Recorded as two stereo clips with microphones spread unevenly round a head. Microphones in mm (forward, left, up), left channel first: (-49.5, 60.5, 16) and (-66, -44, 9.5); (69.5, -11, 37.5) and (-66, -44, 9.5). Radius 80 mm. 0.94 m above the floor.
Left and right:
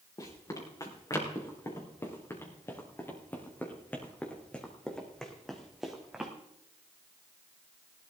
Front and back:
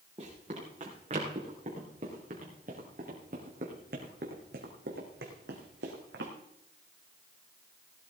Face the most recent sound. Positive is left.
turn(degrees=180)